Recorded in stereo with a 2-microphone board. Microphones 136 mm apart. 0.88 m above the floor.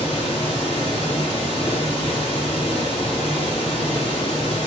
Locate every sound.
0.0 s running water: 45° left (ahead or behind), 1.9 m